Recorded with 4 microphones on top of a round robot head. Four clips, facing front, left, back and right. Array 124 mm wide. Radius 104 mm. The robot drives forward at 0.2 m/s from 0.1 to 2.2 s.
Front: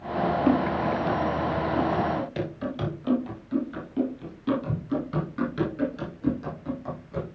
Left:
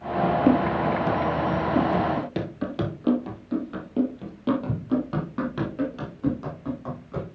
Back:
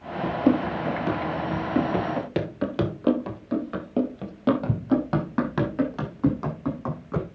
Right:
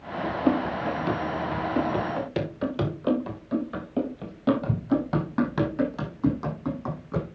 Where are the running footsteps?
120° left, 1.9 m; by 7.2 s 160° right, 4.5 m.